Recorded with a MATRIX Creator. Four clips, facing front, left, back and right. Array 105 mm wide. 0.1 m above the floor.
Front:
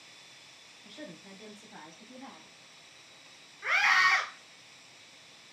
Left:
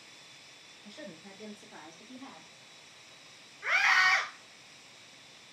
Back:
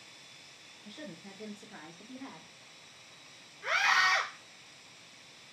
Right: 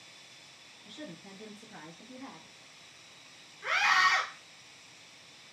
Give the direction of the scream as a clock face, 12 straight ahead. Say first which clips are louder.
Even, front 2 dB; 11 o'clock.